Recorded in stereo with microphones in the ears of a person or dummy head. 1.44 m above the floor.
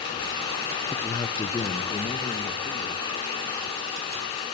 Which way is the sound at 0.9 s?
10° left (ahead or behind).